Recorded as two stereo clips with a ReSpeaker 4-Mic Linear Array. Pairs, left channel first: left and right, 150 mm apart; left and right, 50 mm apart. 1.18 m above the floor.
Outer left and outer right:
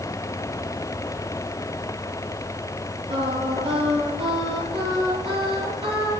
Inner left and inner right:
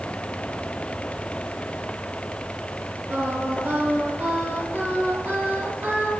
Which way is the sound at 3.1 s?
40° right (ahead or behind).